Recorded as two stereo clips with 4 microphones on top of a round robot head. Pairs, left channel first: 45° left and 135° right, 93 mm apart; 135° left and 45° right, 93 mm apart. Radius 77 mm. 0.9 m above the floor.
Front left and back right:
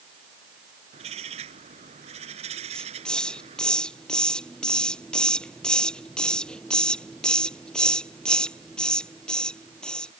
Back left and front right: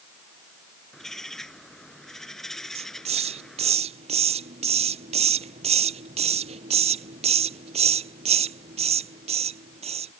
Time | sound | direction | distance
0.9 | a bird | 135° right | ?
2.8 | a hiss | 35° right | ?